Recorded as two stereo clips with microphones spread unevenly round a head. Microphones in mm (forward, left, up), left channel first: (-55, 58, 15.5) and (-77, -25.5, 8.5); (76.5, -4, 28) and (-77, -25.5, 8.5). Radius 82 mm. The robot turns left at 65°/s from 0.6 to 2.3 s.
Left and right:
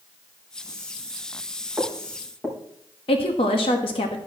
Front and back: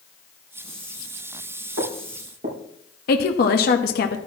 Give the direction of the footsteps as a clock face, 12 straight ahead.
6 o'clock.